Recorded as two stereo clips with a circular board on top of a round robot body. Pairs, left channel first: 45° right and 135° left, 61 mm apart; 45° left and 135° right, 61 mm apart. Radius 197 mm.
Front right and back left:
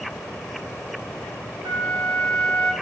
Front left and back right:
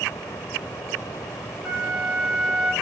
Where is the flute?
140° left, 0.5 m.